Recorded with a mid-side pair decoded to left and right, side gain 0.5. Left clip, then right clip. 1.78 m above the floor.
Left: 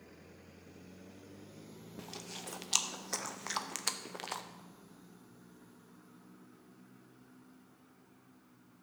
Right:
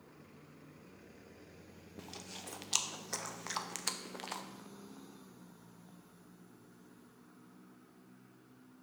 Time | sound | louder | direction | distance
2.0 | chewing | left 2 dB | 10° left | 0.9 m